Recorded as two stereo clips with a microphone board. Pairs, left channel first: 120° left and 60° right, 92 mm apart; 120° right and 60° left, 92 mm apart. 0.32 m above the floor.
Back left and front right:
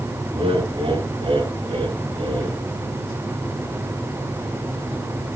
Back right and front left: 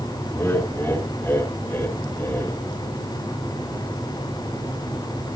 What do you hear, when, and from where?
0.3 s laughter: 50° right, 5 m